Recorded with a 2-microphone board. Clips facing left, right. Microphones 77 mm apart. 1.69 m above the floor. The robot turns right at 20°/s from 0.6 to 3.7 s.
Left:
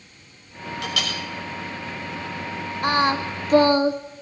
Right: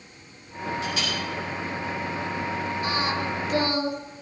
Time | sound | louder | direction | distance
0.8 | a clink | left 4 dB | 80° left | 6 m
2.8 | singing | left 9 dB | 55° left (ahead or behind) | 1.2 m